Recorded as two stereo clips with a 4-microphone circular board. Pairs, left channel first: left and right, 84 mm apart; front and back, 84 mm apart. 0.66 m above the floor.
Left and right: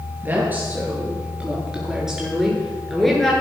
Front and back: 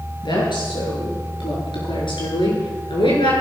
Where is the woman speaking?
20° right, 9 m; by 3.3 s 5° left, 8 m.